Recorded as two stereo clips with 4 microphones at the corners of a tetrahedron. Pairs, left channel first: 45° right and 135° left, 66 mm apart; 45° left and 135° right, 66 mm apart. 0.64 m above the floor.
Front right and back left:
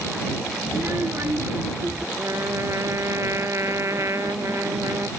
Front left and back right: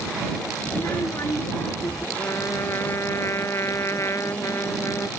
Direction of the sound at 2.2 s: 90° left.